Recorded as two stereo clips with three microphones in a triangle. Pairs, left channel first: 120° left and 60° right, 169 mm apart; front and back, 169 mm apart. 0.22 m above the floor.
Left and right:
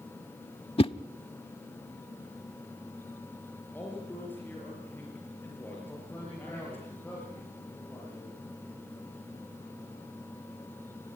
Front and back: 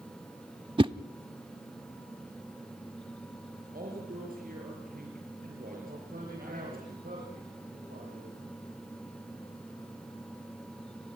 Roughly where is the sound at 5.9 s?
Behind.